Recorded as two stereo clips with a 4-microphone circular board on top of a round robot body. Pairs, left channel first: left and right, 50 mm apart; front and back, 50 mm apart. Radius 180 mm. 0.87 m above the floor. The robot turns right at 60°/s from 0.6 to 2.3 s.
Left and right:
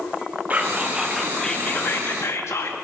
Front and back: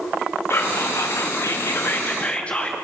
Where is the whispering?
35° right, 2 m; by 2.8 s 70° left, 2 m.